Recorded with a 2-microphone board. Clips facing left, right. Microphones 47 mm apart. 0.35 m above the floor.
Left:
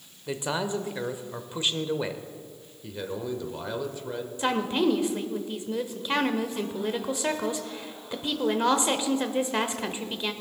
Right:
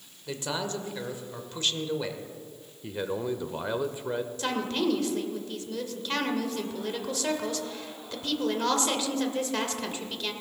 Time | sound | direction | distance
0.3 | a man speaking | 15° left (ahead or behind) | 0.9 m
2.8 | a man speaking | 20° right (ahead or behind) | 0.8 m
4.4 | a woman speaking | 15° left (ahead or behind) | 1.0 m